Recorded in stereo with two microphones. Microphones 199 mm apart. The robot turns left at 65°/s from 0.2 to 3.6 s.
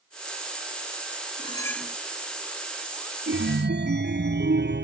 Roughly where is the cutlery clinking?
Ahead left.